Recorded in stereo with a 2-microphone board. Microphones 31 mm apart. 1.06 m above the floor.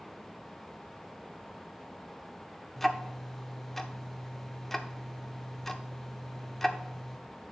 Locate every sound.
2.8 s ticking: 5° left (ahead or behind), 0.8 m